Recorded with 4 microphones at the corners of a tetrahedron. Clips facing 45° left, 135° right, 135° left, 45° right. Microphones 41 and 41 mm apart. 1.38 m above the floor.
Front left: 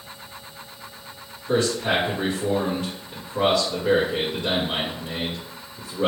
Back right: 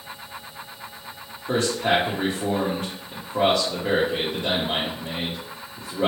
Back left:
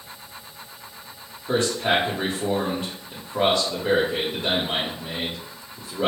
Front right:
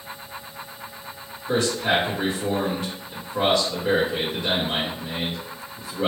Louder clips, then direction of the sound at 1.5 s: Even, even; 170° right.